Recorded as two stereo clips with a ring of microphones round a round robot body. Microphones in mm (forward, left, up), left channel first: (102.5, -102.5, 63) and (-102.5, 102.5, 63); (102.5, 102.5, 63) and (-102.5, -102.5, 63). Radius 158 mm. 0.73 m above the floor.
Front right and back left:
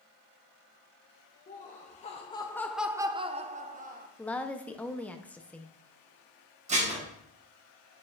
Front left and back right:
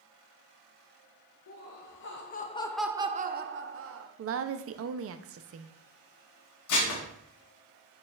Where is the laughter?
15° left, 1.0 m; by 4.1 s 165° right, 1.0 m.